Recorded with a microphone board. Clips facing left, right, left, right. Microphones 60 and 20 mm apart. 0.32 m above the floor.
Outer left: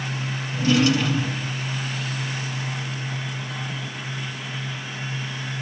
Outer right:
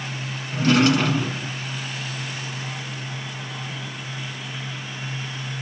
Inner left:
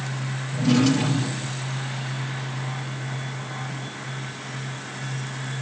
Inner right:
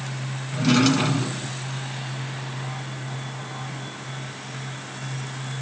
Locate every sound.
0.5 s a drawer: 65° right (ahead or behind), 1.3 m